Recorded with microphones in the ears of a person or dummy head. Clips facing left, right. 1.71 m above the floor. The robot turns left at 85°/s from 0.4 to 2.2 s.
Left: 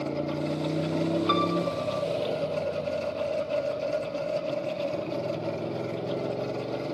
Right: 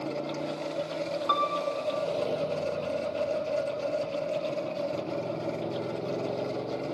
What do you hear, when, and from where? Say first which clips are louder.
0.0 s a motorcycle: left 3 dB; 160° left; by 7.0 s 5° left
1.3 s a piano: left 4 dB; 30° left; by 2.0 s 35° right